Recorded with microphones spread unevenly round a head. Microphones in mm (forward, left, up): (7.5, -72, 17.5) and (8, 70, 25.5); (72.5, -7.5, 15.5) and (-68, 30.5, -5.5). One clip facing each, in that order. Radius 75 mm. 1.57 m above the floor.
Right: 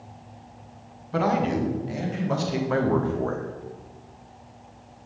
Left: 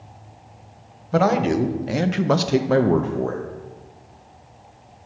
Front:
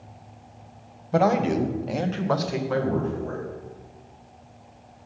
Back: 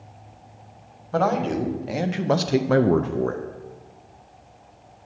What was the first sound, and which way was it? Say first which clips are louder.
A man speaking: left 5 dB, front 1 dB; 55° left.